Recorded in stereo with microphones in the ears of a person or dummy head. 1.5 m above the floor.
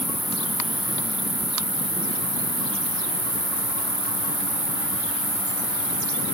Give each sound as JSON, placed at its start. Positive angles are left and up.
{"t": 0.0, "sound": "an insect", "side_deg": -15, "distance_m": 10.0}